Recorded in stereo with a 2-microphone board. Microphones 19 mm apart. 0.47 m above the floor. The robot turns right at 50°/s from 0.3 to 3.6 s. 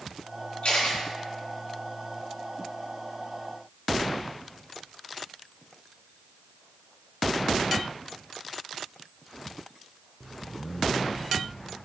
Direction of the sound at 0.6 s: 85° left.